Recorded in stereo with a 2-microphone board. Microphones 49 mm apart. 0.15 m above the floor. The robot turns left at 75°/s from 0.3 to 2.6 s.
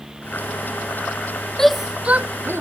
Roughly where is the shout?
Centre.